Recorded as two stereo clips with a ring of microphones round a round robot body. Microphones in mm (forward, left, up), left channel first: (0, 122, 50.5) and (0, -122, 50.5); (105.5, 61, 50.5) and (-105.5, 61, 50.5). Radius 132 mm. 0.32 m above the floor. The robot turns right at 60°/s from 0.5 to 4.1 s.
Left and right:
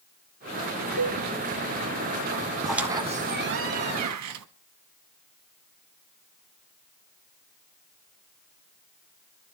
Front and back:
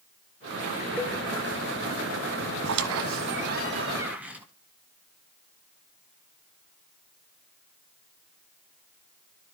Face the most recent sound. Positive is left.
turn(degrees=-95)